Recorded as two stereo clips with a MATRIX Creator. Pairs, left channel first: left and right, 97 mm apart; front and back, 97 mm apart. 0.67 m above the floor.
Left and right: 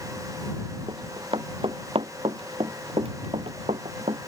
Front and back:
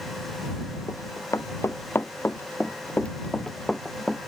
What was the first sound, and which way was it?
Running footsteps, 55° right.